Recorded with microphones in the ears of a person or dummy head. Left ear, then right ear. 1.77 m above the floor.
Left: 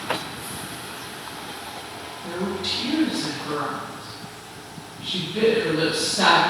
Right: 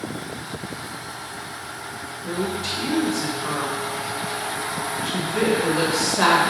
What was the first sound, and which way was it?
A woman speaking, 35° right (ahead or behind).